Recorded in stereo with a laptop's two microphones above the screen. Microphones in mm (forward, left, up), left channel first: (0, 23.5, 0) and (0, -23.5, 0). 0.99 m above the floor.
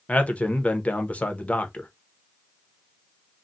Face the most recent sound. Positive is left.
turn(degrees=35)  # may be behind; listen again after turning